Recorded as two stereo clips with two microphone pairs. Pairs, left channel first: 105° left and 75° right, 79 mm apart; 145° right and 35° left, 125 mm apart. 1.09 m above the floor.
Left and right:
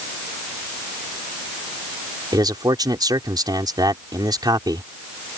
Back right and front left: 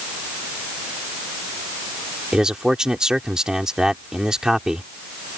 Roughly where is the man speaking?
Ahead right.